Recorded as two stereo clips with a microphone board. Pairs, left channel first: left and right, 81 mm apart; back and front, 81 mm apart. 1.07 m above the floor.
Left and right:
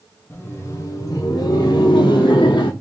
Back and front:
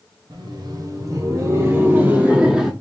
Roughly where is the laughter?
Ahead left.